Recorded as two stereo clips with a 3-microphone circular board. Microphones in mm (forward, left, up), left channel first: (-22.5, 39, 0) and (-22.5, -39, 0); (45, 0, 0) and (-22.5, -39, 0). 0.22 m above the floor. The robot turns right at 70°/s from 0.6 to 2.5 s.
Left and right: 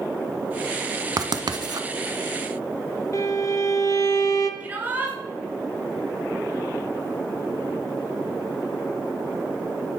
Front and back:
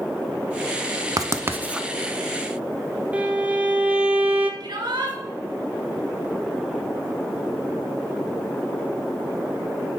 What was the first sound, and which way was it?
Writing, 115° right.